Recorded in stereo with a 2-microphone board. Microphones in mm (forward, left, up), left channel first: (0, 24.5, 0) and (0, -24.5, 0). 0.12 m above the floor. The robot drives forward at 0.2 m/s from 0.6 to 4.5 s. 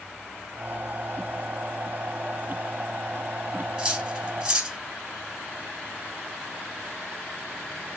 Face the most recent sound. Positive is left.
turn(degrees=-20)  # may be behind; listen again after turning